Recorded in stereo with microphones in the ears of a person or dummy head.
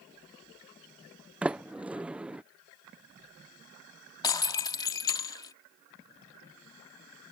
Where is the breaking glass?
20° left (ahead or behind).